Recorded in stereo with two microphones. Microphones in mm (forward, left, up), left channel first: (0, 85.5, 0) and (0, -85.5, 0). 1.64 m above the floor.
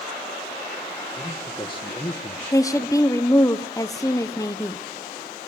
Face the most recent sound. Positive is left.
turn(degrees=20)  # may be behind; listen again after turning